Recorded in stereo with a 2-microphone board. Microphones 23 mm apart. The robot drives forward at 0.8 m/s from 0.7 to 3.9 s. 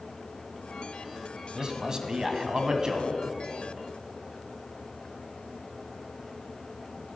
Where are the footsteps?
I don't hear footsteps.